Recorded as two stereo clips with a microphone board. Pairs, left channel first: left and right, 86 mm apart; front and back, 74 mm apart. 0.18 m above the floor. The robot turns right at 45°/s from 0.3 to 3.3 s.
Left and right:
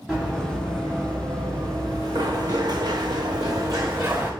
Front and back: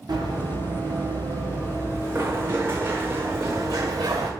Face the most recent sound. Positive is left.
turn(degrees=-155)